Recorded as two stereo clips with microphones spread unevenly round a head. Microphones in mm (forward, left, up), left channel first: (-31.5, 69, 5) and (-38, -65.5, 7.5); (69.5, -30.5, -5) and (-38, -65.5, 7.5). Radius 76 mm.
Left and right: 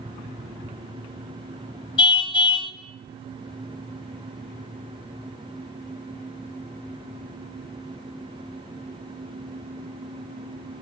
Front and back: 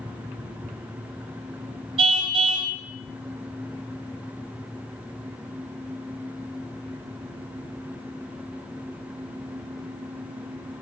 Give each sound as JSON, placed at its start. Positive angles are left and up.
{"t": 2.0, "sound": "a car horn", "azimuth_deg": 140, "distance_m": 3.0}